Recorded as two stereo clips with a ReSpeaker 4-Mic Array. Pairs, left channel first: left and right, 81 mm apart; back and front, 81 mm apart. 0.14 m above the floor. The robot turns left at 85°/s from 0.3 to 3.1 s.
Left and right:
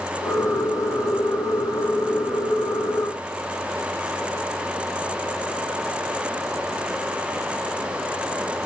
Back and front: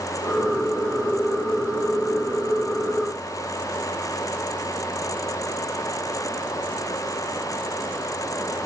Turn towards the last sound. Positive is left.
No sound to turn to.